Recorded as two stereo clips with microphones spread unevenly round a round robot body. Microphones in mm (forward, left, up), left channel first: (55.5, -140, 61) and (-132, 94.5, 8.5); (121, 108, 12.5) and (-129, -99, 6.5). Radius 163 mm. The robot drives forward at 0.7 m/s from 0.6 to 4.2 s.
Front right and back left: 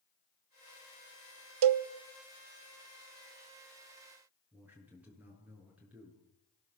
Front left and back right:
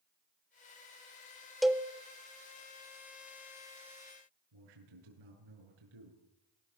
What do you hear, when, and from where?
1.6 s a cowbell: 130° left, 0.9 m; by 1.9 s 135° left, 1.0 m
4.5 s a man speaking: 145° right, 8 m